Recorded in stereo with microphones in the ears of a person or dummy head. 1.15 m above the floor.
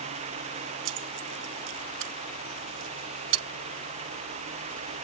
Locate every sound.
0.8 s keys jangling: 75° right (ahead or behind)